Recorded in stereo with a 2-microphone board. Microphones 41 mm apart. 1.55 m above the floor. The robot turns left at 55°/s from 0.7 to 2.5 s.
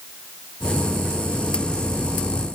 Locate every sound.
Only background noise.